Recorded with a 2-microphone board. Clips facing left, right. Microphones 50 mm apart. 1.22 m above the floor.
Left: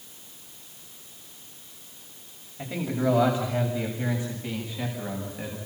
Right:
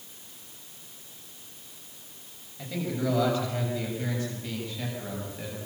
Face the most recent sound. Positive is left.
turn(degrees=15)  # may be behind; listen again after turning